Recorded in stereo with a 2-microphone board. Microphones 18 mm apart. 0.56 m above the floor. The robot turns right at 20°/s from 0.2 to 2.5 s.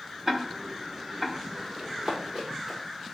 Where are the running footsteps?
50° right (ahead or behind), 5 m; by 2.8 s 45° right (ahead or behind), 5.5 m.